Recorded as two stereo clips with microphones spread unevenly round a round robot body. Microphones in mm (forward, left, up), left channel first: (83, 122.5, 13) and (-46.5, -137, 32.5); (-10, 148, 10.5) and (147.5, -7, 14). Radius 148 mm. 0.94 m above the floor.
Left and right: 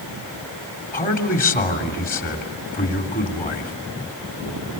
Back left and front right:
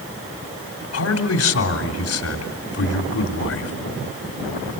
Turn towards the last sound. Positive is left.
turn(degrees=125)